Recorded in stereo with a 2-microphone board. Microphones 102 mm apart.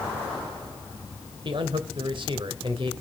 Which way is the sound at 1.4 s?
50° right (ahead or behind).